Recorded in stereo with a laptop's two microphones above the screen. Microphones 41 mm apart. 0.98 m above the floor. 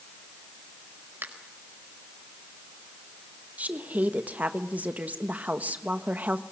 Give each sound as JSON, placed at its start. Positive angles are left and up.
{"t": 1.2, "sound": "a finger snap", "side_deg": -60, "distance_m": 4.5}
{"t": 3.6, "sound": "a woman speaking", "side_deg": -40, "distance_m": 1.2}